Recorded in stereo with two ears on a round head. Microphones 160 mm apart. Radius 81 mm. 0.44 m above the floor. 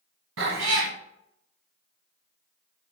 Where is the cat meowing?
85° right, 1.4 m.